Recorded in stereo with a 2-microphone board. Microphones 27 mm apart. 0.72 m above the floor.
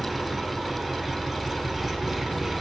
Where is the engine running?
5° right (ahead or behind), 3.5 m.